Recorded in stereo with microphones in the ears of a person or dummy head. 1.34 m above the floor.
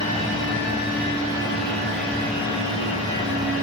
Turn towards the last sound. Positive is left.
turn(degrees=30)  # may be behind; listen again after turning